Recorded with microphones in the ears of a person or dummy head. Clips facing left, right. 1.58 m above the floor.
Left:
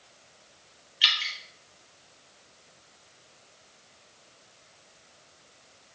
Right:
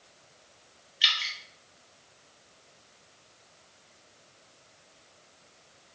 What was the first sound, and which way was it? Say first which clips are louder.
Dripping: left 1 dB; 5° left (ahead or behind).